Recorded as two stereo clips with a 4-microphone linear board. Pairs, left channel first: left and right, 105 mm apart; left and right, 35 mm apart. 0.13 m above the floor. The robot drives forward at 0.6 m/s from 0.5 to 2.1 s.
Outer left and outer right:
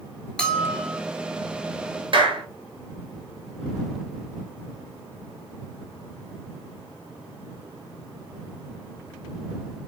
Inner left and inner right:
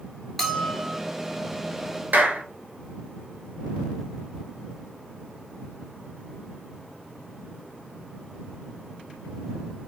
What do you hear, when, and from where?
0.4 s a bell: 10° left (ahead or behind), 1.3 m
2.1 s a clap: 55° right (ahead or behind), 1.4 m